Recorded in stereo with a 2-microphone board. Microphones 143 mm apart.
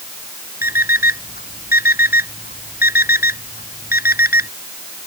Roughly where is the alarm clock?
Left.